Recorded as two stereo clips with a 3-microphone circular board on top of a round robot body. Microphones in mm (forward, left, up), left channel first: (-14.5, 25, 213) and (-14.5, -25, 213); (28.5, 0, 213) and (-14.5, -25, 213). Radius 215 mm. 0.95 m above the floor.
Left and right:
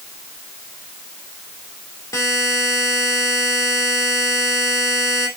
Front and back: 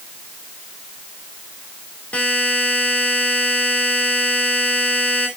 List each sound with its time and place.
2.1 s a buzzer: 90° left, 2.5 m